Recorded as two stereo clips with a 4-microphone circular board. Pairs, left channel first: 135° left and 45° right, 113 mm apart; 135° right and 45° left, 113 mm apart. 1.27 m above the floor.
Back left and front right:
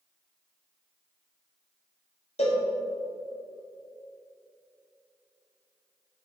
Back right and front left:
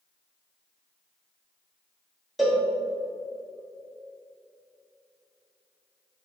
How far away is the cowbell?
About 1.2 m.